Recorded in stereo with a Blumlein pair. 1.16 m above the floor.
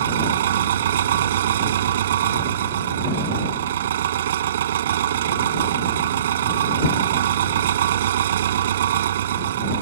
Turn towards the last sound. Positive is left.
turn(degrees=-60)